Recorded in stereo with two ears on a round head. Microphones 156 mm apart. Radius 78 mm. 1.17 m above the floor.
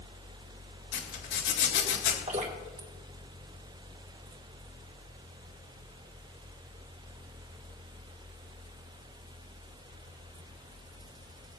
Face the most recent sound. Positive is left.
turn(degrees=-40)  # may be behind; listen again after turning